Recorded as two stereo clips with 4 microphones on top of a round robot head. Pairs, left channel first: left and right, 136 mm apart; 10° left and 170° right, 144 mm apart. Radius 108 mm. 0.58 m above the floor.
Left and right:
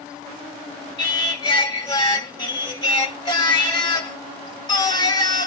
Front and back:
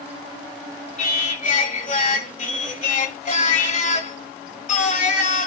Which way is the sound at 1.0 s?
35° left.